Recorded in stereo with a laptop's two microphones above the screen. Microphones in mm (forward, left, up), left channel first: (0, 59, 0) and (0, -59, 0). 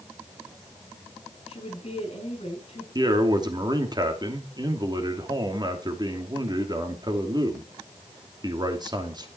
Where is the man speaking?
35° right (ahead or behind), 2.5 m.